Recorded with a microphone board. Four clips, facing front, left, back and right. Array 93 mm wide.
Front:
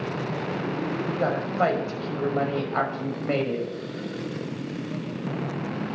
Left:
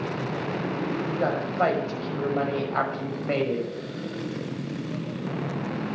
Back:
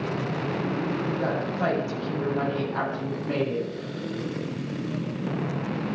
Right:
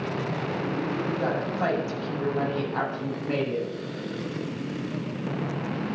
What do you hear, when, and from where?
1.0 s a woman speaking: 45° left, 6.5 m